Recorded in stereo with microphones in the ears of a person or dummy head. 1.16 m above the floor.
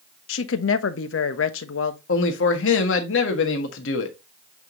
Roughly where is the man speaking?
Left.